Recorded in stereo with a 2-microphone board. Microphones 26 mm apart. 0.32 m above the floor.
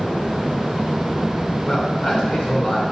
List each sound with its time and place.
1.7 s a man speaking: 45° left (ahead or behind), 3.5 m